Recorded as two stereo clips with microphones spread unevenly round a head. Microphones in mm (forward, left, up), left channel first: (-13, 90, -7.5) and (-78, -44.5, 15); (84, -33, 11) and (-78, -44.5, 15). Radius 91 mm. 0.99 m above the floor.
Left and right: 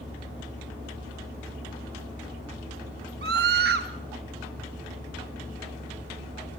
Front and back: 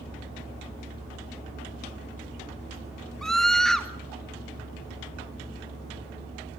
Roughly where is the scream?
Right.